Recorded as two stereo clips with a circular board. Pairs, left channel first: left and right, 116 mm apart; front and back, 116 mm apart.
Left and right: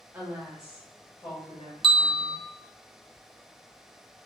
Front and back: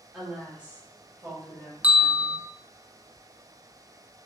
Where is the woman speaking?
100° right, 1.0 m; by 2.4 s 115° left, 1.8 m.